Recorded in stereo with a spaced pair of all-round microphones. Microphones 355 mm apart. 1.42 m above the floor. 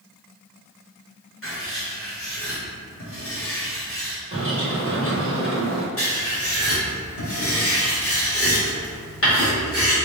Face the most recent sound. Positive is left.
turn(degrees=40)  # may be behind; listen again after turning